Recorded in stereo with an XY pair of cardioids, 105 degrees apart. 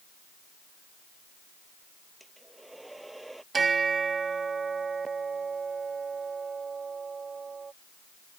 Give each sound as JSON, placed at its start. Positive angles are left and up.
{"t": 2.2, "sound": "a hair dryer", "azimuth_deg": -10}
{"t": 3.5, "sound": "a bell", "azimuth_deg": -35}